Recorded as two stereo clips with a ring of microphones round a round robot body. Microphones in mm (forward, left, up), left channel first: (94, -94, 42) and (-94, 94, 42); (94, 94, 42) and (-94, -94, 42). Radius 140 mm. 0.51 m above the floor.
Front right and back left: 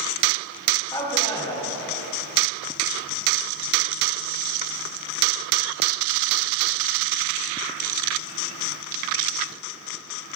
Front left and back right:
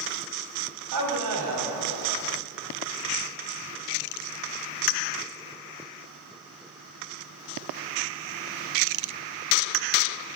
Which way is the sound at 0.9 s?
120° right.